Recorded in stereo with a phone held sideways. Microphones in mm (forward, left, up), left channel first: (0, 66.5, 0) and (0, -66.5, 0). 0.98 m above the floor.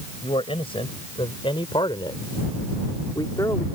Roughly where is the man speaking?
Left.